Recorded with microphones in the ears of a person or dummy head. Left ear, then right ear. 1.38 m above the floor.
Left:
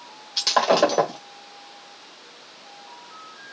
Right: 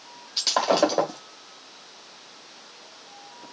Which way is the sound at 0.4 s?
5° left (ahead or behind).